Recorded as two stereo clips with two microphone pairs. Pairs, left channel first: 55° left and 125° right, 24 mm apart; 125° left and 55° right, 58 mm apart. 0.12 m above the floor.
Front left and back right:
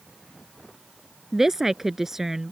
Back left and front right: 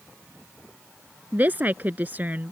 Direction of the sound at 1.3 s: 60° right.